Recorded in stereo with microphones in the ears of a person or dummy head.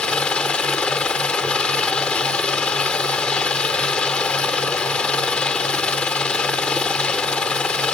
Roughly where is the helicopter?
Centre.